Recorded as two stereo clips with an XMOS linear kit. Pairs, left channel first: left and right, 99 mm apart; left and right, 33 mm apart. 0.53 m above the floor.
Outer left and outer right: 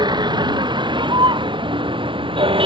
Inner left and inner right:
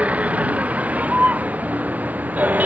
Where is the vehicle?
45° right (ahead or behind); by 2.7 s 60° right (ahead or behind).